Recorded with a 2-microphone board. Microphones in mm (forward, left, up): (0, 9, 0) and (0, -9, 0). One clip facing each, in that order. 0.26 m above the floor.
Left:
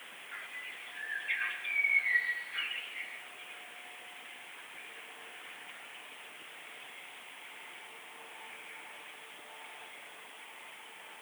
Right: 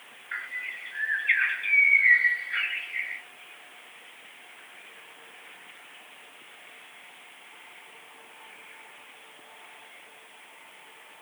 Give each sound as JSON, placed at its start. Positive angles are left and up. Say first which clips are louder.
{"t": 0.3, "sound": "a bird", "louder": "right 10 dB", "side_deg": -70, "distance_m": 3.0}